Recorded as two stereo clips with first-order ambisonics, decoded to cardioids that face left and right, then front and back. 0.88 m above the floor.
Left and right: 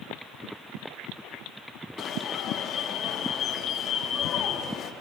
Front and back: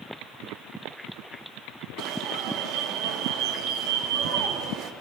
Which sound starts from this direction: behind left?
An alarm, at 2.0 s.